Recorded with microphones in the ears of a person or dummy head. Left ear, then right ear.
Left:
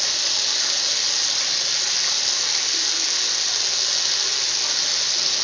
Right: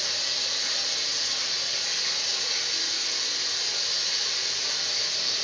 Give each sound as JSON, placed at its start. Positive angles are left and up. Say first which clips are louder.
{"t": 0.0, "sound": "running water", "louder": "left 5 dB", "side_deg": 65, "distance_m": 0.9}